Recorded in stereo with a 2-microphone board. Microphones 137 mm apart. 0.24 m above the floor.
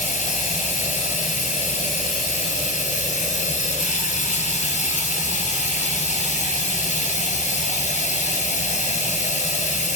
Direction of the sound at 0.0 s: 60° left (ahead or behind).